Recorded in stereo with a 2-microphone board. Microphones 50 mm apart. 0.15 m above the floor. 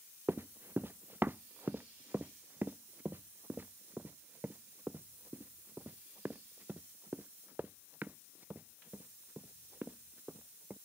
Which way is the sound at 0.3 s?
50° right (ahead or behind).